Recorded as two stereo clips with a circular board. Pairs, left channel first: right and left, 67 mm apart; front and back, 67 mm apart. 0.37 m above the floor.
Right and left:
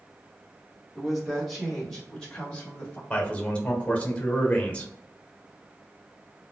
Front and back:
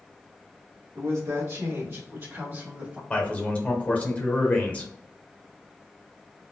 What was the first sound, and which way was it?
A woman speaking, 175° left.